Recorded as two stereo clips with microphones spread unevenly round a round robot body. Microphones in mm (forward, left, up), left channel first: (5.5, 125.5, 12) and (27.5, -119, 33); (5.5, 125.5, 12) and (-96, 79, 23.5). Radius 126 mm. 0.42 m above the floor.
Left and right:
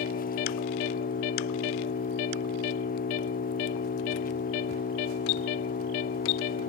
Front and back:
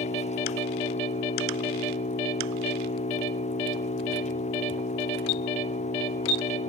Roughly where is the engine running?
Ahead left.